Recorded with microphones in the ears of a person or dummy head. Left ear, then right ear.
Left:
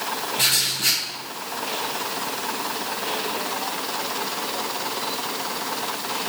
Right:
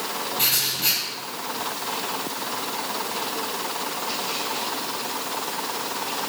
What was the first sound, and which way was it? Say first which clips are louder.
Writing: left 3 dB; 5° left (ahead or behind).